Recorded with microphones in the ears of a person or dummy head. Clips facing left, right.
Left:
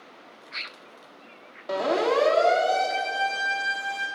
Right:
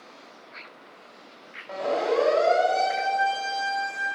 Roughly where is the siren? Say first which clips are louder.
Left 2 dB; left.